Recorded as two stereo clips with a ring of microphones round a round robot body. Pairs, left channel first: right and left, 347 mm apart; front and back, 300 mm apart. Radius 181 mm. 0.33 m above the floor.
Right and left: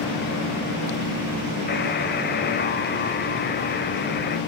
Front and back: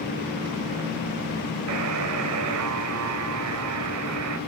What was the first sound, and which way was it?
A buzzer, 150° right.